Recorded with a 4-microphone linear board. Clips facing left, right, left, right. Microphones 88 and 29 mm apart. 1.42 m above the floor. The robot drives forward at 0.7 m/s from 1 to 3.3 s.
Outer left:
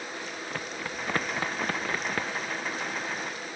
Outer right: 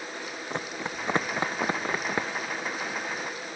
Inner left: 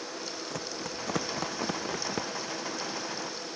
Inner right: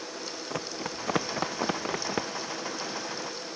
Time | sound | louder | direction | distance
0.5 | running footsteps | outer right 4 dB, inner right 2 dB | 25° right (ahead or behind) | ?